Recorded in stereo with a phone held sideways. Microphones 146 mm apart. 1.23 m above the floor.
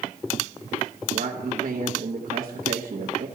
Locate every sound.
1.1 s a man speaking: 85° right, 1.0 m